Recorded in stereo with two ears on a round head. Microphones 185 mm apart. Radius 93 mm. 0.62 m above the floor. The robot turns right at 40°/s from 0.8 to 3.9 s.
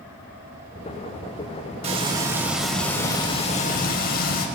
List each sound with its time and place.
1.8 s frying: 35° right, 4 m; by 4.5 s 50° left, 4 m